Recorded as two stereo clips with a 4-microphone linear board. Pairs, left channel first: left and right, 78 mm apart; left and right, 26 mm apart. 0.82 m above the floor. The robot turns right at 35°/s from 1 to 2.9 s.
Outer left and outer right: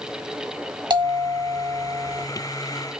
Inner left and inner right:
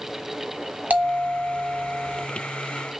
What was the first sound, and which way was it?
A bell, 80° right.